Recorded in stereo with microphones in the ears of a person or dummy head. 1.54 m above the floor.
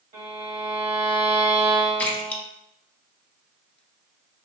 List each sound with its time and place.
0.1 s a violin: 35° right (ahead or behind), 1.4 m
2.0 s a splash: 5° left (ahead or behind), 0.8 m